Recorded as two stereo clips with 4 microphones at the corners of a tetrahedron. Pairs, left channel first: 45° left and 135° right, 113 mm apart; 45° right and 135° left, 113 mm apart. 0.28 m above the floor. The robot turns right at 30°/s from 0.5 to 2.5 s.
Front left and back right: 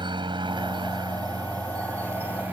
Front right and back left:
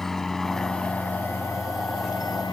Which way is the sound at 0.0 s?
130° right.